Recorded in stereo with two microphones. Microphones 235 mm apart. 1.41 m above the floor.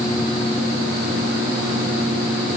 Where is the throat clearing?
I don't hear throat clearing.